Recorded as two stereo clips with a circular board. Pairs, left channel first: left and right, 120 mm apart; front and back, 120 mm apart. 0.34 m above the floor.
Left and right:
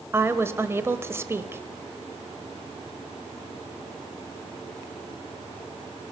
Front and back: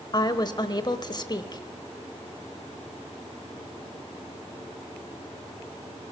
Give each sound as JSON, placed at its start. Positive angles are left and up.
{"t": 0.1, "sound": "a woman speaking", "azimuth_deg": -30, "distance_m": 1.2}